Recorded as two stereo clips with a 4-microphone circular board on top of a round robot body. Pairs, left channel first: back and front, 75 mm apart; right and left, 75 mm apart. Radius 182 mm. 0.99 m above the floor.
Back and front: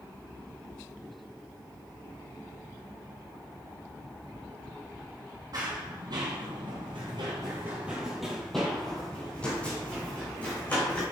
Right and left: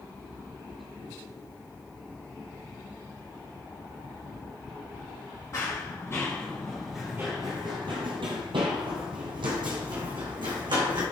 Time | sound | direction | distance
5.5 | running footsteps | 40° right | 2 m